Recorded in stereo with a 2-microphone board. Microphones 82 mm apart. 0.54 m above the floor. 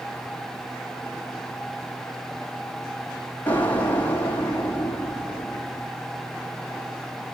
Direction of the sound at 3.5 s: 20° left (ahead or behind).